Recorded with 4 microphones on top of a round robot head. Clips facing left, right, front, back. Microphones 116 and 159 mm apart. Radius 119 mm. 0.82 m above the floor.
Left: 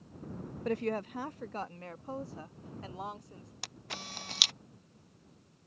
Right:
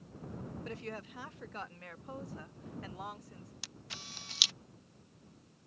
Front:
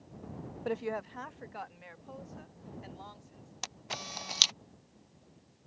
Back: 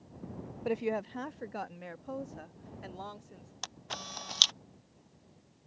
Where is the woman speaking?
100° left; by 3.5 s 155° left.